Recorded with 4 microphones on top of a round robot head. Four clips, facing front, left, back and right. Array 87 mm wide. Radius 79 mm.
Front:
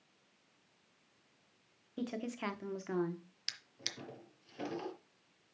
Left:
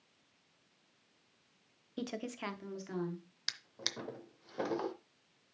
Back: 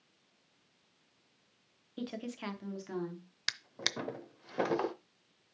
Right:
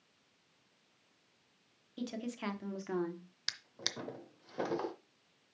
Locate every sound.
2.0 s a woman speaking: 90° left, 1.3 m; by 3.3 s 50° right, 1.7 m
3.5 s a drawer: straight behind, 0.6 m